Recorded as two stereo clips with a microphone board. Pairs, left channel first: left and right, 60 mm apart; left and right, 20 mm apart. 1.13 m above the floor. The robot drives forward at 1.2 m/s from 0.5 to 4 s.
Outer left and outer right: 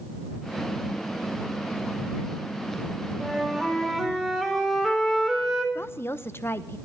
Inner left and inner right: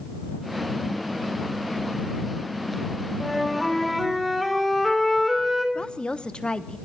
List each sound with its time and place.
3.2 s a flute: 5° left (ahead or behind), 4.5 m
5.8 s a woman speaking: 40° left (ahead or behind), 1.0 m